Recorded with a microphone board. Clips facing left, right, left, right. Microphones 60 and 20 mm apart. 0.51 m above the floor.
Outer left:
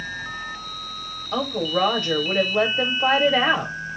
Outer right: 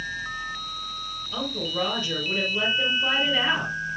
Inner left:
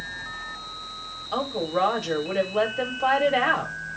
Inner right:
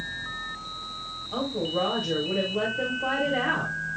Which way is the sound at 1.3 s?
65° left (ahead or behind).